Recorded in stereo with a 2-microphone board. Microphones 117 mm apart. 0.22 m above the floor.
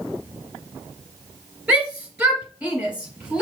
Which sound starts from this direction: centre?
A shout, at 1.7 s.